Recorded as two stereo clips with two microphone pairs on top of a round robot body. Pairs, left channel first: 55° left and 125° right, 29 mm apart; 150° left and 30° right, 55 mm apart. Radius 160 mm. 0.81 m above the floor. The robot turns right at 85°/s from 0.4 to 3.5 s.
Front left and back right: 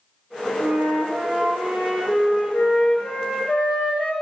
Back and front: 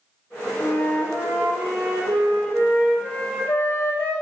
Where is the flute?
150° right, 0.7 m; by 4.1 s 95° left, 0.7 m.